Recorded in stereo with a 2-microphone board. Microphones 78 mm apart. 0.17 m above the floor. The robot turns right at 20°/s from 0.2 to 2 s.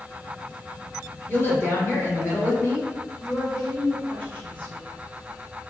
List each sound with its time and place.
1.3 s a woman speaking: 25° left (ahead or behind), 1.1 m; by 3.1 s 30° left (ahead or behind), 1.1 m
3.2 s a woman speaking: 20° left (ahead or behind), 1.5 m